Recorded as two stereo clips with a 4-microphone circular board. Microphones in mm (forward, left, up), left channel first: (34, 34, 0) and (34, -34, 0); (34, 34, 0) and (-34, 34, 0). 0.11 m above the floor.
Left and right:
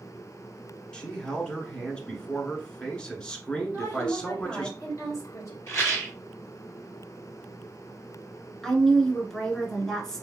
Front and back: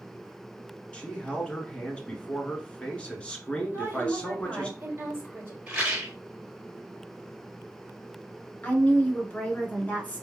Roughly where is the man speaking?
Ahead left.